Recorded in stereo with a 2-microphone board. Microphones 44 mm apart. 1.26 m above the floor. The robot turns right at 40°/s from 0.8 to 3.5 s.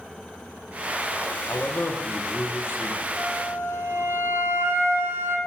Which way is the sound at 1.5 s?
70° left.